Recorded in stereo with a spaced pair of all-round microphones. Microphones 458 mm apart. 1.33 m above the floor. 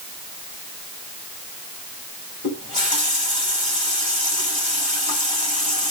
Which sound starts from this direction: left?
A running tap, at 2.4 s.